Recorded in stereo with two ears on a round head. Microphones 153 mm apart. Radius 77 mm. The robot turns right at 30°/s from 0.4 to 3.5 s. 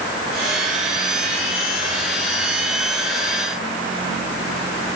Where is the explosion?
I don't hear an explosion.